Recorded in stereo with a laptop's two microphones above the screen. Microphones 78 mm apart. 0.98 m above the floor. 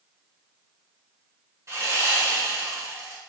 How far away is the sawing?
About 1.7 m.